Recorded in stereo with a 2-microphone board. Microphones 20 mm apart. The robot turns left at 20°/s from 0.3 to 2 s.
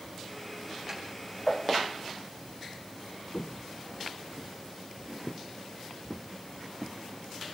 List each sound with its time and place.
0.9 s a snare drum: 20° right (ahead or behind), 6.5 m; by 1.0 s 15° right (ahead or behind), 6.5 m
3.3 s footsteps: 60° left (ahead or behind), 0.8 m; by 7.0 s 5° right (ahead or behind), 2.5 m